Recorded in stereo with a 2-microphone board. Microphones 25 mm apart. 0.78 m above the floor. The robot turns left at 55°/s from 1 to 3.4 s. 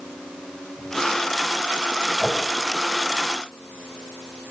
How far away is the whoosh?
About 3 m.